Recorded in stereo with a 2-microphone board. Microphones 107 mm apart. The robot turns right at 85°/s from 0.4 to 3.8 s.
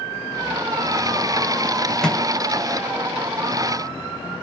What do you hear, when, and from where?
2.0 s a microwave: 5° left (ahead or behind), 4.5 m; by 2.2 s 20° left (ahead or behind), 4.5 m